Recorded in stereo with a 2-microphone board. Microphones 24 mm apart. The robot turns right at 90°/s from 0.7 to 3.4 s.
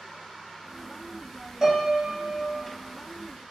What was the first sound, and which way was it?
A piano, 15° right.